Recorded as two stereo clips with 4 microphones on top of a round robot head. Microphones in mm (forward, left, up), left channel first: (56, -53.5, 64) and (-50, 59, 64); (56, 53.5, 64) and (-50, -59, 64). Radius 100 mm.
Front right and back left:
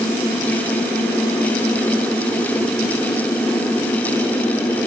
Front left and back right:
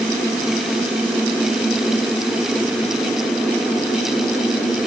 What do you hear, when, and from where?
Only background noise.